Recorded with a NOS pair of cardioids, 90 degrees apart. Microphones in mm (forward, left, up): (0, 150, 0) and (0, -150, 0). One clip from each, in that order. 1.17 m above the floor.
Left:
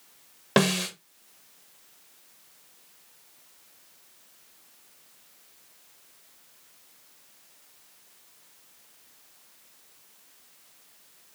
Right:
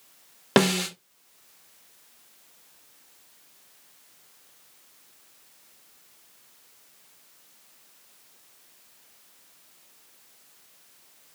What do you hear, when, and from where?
0.6 s a snare drum: 30° right, 0.8 m